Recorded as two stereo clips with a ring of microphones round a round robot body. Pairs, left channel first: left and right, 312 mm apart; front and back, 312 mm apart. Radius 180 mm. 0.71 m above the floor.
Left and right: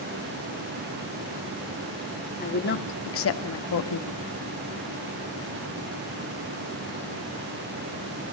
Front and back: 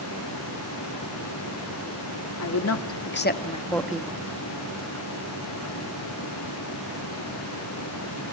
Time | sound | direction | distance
2.4 | a woman speaking | 30° left | 2.5 m